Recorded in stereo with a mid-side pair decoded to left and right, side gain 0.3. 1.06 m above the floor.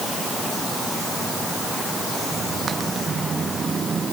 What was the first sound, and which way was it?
Only background noise.